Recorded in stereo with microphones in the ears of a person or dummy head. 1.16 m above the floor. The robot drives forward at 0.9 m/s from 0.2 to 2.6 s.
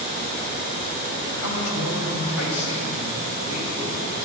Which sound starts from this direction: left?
A man speaking, at 1.4 s.